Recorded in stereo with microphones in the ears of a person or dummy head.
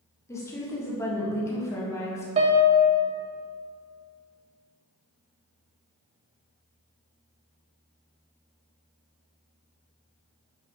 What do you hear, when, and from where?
0.3 s a woman speaking: 15° left (ahead or behind), 1.6 m
2.4 s a piano: 35° right (ahead or behind), 0.8 m